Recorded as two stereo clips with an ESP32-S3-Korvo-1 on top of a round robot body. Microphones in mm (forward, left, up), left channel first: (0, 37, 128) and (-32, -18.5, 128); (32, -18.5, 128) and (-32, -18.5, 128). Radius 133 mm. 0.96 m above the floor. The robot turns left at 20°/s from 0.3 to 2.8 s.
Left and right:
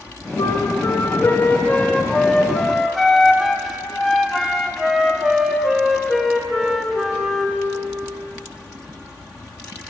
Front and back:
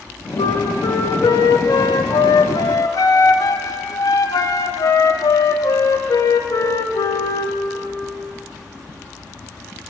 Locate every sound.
0.4 s a flute: 20° left, 1.2 m; by 7.6 s 30° right, 1.2 m